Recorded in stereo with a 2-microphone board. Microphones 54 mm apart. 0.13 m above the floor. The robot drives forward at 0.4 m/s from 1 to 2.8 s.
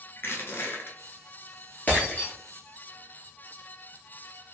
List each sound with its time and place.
0.2 s crushing: 45° left (ahead or behind), 0.9 m
1.9 s breaking glass: 35° left (ahead or behind), 1.4 m; by 2.3 s 30° left (ahead or behind), 1.6 m